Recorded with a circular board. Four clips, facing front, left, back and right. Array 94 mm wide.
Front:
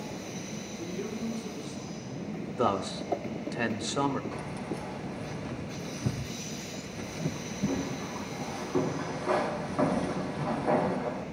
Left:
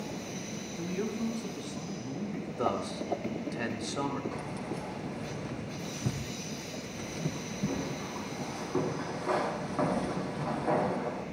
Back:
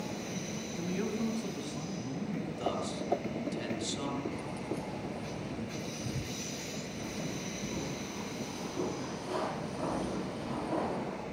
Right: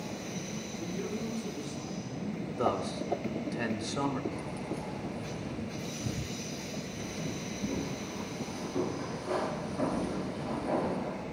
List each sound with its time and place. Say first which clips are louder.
0.8 s a man speaking: left 3 dB, back 2 dB; 140° left, 4 m
2.6 s a man speaking: right 1 dB, front 9 dB; 5° right, 1.7 m
4.3 s keys jangling: even, front 1 dB; 40° left, 4 m